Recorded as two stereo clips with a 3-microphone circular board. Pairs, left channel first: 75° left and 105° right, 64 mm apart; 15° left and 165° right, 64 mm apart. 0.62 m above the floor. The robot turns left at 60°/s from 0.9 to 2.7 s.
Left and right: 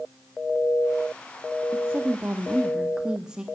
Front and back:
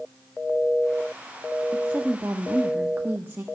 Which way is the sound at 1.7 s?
110° right.